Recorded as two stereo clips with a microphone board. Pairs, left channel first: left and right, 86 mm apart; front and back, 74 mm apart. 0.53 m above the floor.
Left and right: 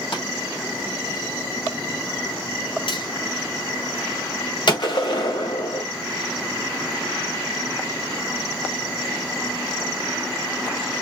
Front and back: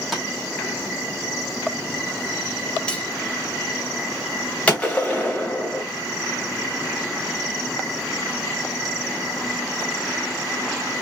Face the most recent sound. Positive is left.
turn(degrees=70)